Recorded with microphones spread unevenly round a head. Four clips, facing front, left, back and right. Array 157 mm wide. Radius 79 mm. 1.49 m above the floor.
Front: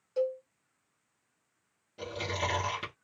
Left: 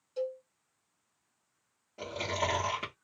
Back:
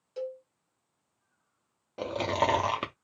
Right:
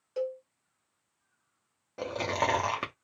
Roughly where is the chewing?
Behind right.